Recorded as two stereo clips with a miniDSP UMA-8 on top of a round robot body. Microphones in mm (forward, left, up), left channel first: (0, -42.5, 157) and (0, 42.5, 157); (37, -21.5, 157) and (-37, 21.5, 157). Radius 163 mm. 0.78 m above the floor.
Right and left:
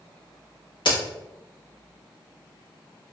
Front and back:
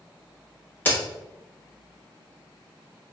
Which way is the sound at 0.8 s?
95° right.